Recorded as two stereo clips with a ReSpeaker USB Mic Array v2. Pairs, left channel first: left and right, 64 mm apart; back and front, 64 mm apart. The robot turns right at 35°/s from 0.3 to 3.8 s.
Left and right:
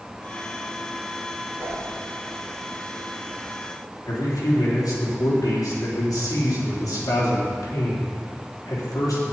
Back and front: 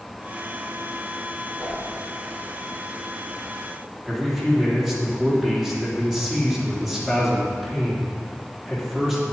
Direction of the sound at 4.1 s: 85° left.